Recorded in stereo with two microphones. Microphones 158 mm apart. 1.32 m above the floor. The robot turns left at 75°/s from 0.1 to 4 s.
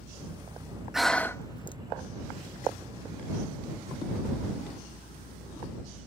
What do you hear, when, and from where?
0.9 s breathing: 5° right (ahead or behind); by 1.8 s 35° left (ahead or behind)